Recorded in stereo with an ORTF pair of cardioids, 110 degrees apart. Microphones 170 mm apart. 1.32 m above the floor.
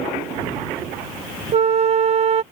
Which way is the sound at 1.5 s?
40° right.